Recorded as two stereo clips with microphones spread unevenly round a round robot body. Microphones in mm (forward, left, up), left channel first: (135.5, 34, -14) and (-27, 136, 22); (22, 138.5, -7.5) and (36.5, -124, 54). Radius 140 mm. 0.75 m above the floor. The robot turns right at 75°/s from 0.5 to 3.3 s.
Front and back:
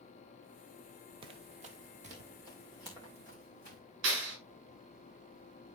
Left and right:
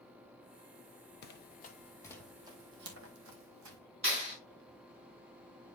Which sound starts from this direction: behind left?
Running footsteps, at 1.2 s.